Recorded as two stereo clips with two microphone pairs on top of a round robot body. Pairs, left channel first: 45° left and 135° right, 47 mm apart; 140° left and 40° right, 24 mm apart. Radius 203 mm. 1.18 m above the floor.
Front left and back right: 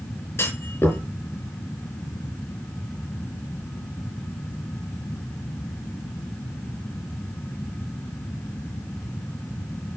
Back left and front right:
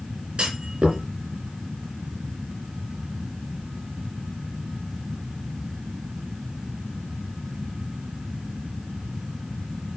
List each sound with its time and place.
0.4 s a clunk: 5° left, 4.5 m